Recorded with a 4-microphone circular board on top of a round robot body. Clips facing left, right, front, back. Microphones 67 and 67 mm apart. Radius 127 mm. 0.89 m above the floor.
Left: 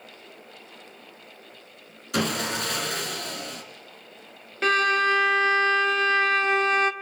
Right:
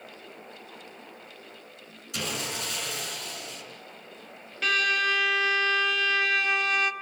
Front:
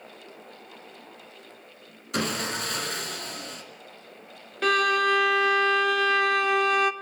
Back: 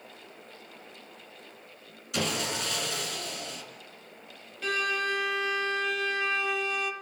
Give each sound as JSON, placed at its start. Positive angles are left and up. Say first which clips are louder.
{"t": 2.1, "sound": "sawing", "louder": "left 7 dB, front 2 dB", "azimuth_deg": 50, "distance_m": 4.0}
{"t": 4.6, "sound": "a violin", "louder": "left 5 dB, front 7 dB", "azimuth_deg": 30, "distance_m": 0.9}